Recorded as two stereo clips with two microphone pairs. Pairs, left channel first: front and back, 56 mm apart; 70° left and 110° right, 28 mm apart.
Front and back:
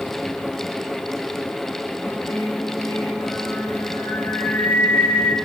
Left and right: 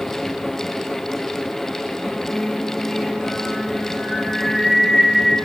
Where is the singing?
10° right, 1.8 m.